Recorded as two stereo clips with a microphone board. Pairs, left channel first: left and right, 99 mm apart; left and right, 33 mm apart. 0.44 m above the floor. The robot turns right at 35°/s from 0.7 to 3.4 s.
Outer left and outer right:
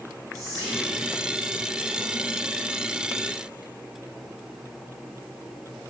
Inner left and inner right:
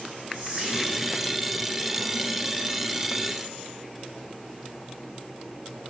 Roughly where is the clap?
No clap in this recording.